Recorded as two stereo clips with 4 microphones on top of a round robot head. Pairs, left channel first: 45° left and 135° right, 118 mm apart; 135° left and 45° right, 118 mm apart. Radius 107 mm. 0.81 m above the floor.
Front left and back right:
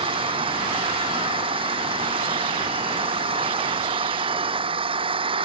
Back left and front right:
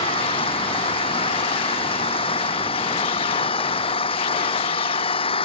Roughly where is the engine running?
Behind.